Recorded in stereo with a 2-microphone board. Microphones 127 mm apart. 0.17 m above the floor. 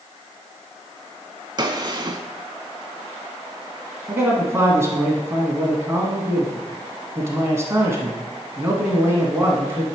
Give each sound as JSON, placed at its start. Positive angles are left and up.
{"t": 1.6, "sound": "a gunshot", "side_deg": -40, "distance_m": 0.6}
{"t": 4.1, "sound": "a man speaking", "side_deg": -25, "distance_m": 1.3}